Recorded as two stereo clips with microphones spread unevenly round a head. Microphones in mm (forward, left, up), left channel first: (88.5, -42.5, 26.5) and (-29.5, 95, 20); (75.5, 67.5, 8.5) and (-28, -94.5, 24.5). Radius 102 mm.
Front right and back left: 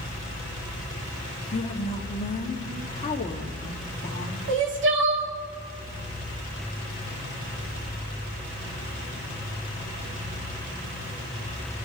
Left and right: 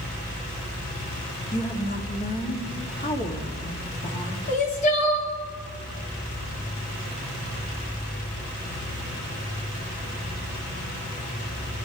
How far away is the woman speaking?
About 1.9 m.